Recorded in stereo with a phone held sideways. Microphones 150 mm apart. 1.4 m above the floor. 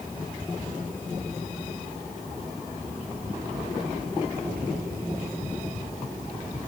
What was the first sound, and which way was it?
Only background noise.